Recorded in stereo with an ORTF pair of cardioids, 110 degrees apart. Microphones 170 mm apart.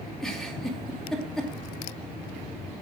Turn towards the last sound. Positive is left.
turn(degrees=0)